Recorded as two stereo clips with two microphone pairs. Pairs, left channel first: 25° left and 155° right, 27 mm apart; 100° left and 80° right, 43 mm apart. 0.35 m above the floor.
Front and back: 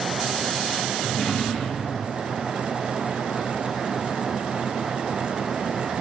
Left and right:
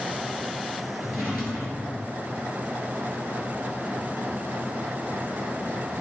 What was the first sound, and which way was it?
A drawer, 40° right.